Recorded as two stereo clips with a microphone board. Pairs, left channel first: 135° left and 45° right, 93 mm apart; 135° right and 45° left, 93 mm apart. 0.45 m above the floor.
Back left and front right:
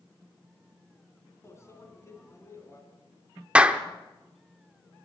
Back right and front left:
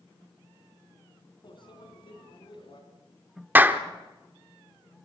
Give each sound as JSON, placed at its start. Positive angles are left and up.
{"t": 1.4, "sound": "a microwave", "azimuth_deg": -165, "distance_m": 3.0}
{"t": 3.5, "sound": "a clap", "azimuth_deg": 15, "distance_m": 1.0}